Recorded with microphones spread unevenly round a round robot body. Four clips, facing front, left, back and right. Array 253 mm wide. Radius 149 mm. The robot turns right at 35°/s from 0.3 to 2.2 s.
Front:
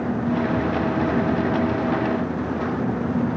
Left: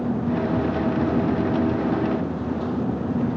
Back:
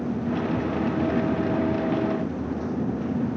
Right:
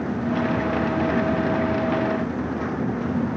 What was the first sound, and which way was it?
Only background noise.